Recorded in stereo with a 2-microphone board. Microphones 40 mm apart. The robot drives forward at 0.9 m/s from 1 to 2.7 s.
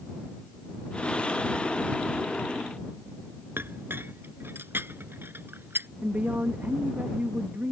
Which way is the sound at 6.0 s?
50° right (ahead or behind).